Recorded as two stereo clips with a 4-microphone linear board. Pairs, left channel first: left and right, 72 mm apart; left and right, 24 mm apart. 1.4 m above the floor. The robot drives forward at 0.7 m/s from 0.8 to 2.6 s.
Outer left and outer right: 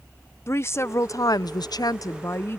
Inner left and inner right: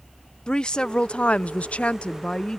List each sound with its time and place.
0.5 s a woman speaking: 40° left (ahead or behind); by 2.6 s 35° left (ahead or behind)